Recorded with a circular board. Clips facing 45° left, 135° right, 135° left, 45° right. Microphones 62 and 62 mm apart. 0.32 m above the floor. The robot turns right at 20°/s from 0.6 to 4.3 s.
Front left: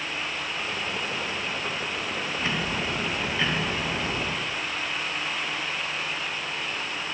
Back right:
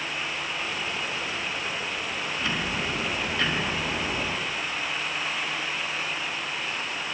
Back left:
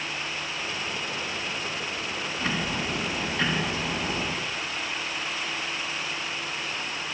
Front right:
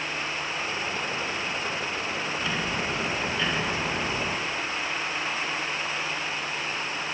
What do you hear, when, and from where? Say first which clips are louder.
2.4 s ticking: even, back left 2 dB; 105° left, 3 m; by 4.3 s 140° left, 3 m